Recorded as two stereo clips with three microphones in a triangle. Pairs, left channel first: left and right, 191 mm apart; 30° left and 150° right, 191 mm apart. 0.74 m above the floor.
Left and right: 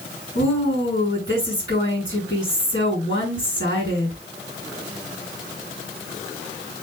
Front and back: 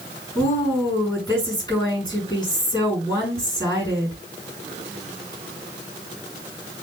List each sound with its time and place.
0.3 s a woman speaking: 95° left, 6.5 m